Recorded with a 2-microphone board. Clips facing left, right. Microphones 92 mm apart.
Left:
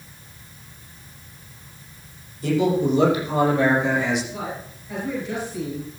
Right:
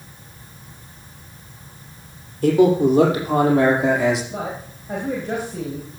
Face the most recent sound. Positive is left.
turn(degrees=-60)  # may be behind; listen again after turning